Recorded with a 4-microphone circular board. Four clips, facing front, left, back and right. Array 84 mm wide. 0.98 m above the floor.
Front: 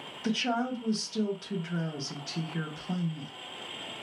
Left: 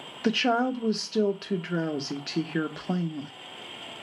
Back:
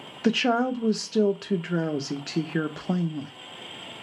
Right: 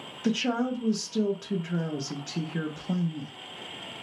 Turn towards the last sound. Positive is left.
turn(degrees=150)